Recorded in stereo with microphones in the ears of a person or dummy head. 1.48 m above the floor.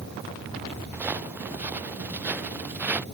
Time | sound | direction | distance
0.9 | footsteps | 10° right (ahead or behind) | ?